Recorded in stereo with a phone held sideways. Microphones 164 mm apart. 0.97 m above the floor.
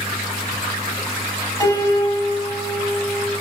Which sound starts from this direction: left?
A piano, at 1.6 s.